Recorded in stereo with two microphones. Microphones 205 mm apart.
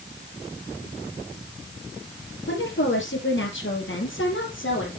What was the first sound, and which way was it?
A woman speaking, 65° left (ahead or behind).